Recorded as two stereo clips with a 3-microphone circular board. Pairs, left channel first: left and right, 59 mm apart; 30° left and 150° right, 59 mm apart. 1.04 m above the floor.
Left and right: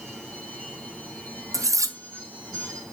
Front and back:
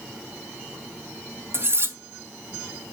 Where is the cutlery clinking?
105° right, 0.6 m.